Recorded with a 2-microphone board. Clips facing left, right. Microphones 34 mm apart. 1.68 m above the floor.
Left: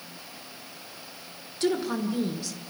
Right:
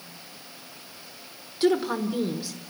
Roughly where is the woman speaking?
Centre.